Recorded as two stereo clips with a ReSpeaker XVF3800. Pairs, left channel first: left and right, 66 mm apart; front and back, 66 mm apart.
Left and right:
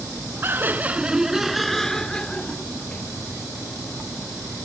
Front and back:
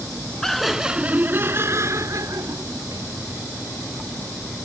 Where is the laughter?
80° right; by 3.1 s 155° left.